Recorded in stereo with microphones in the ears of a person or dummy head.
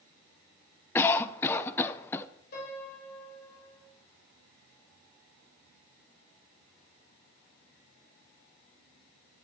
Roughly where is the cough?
Centre.